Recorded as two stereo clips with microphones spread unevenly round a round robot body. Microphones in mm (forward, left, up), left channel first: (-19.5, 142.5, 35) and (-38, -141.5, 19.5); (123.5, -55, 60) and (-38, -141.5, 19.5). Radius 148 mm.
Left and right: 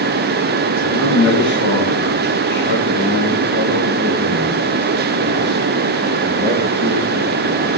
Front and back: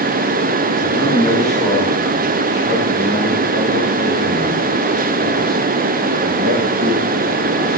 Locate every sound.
0.8 s a man speaking: 105° left, 3 m; by 7.8 s 170° right, 6 m